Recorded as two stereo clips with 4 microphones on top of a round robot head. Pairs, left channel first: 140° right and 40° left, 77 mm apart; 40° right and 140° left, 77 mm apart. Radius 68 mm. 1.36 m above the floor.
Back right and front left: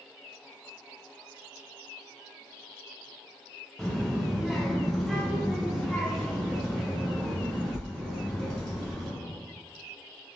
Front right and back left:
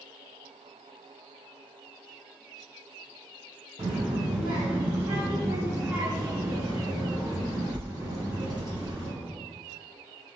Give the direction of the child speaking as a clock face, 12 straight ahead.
7 o'clock.